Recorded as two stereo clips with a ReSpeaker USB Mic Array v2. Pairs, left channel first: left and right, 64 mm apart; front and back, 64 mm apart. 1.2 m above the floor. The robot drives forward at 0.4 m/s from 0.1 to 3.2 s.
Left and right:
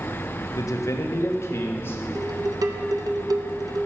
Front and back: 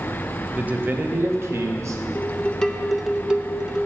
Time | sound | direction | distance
0.6 | a man speaking | 115° left | 0.7 m
2.1 | dishes clattering | 60° right | 0.6 m